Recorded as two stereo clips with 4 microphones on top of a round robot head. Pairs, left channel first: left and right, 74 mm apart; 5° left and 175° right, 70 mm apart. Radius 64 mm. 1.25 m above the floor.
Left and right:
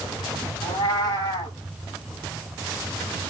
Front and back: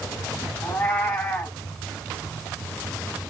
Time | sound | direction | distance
0.6 | a cat meowing | 80° left | 1.4 m